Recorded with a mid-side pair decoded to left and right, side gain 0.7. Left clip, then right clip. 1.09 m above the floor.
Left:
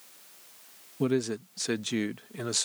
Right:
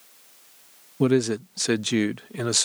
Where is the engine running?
I don't hear an engine running.